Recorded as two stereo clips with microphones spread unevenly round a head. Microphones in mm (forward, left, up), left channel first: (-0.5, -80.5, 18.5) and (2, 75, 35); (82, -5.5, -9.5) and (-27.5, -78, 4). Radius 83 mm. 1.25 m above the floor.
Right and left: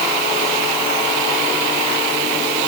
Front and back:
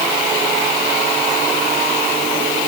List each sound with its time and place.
Only background noise.